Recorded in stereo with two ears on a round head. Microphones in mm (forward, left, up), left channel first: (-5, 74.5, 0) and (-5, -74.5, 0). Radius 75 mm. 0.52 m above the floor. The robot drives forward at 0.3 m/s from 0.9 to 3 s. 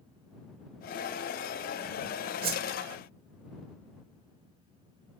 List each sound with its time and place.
2.4 s a whoosh: 55° right (ahead or behind), 1.3 m